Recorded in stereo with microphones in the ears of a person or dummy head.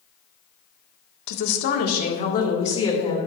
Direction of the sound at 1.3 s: 65° left (ahead or behind).